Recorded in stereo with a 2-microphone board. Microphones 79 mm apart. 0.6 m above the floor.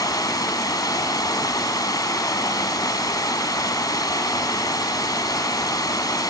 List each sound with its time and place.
0.0 s running water: 60° left (ahead or behind), 1.6 m